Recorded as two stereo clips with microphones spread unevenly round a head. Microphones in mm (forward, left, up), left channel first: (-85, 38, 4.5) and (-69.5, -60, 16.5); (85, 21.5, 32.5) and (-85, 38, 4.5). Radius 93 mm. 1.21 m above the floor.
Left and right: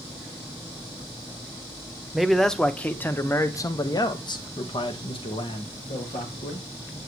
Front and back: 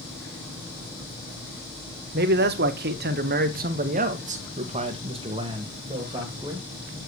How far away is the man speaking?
About 1.3 m.